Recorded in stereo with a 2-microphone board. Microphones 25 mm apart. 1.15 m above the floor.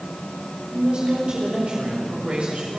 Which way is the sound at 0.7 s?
45° right (ahead or behind).